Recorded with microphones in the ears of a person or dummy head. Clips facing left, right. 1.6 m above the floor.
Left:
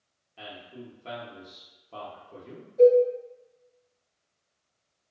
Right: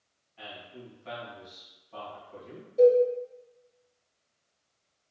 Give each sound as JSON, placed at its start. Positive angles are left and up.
{"t": 0.4, "sound": "a man speaking", "side_deg": 65, "distance_m": 0.7}
{"t": 2.8, "sound": "a cowbell", "side_deg": -45, "distance_m": 1.0}